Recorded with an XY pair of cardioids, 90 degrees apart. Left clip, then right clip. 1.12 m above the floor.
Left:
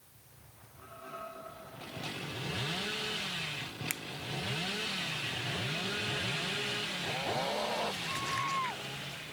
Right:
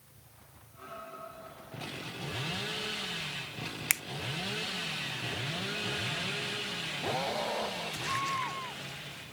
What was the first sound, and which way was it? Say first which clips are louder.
A finger snap: right 10 dB; 65° right.